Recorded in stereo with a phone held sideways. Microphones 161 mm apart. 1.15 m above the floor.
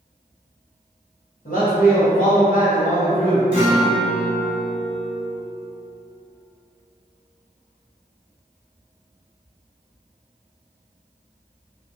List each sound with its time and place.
1.4 s a man speaking: 55° left (ahead or behind), 1.0 m
3.5 s a guitar: 50° left (ahead or behind), 1.5 m